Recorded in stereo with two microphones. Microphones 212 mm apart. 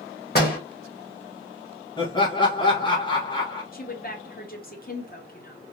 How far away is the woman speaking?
About 0.9 m.